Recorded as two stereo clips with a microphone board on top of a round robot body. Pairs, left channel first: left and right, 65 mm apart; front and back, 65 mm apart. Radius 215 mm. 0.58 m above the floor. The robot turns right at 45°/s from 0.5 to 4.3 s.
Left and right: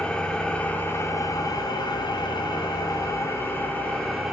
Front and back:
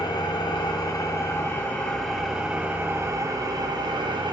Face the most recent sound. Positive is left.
turn(degrees=-175)